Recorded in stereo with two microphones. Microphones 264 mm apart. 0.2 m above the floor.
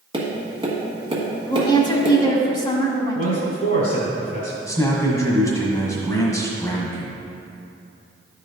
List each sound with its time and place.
0.1 s tapping: 20° right (ahead or behind), 1.5 m
1.5 s a woman speaking: 20° left (ahead or behind), 1.1 m
3.1 s a man speaking: 35° left (ahead or behind), 1.3 m
4.7 s a man speaking: 15° left (ahead or behind), 1.2 m